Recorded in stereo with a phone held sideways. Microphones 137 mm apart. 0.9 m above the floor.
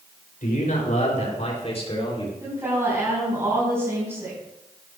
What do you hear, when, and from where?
0.4 s a man speaking: 70° left (ahead or behind), 3.5 m; by 2.3 s 35° left (ahead or behind), 3.5 m
2.4 s a woman speaking: 20° right (ahead or behind), 5.5 m